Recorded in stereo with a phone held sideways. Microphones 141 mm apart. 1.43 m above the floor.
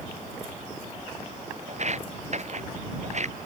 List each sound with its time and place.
1.7 s footsteps: 55° right (ahead or behind)